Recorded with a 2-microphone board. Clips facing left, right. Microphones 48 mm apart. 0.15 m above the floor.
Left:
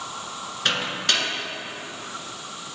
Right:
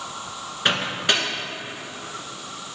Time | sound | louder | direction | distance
0.7 | a microwave | right 2 dB | 15° right (ahead or behind) | 1.7 m